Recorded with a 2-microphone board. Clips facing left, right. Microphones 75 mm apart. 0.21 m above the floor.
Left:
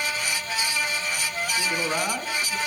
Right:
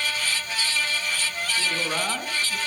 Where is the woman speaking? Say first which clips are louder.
Left 1 dB; 15° left (ahead or behind), 2.5 m; by 2.6 s 10° right (ahead or behind), 2 m.